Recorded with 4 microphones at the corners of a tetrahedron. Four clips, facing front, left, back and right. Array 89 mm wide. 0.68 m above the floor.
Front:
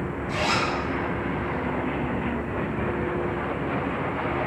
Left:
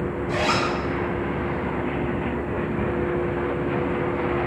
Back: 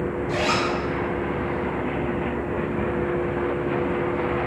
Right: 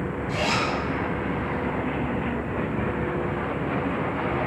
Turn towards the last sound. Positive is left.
turn(degrees=125)